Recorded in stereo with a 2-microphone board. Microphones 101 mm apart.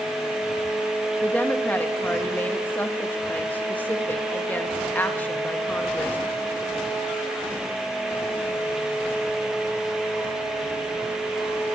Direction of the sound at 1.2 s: 20° left (ahead or behind).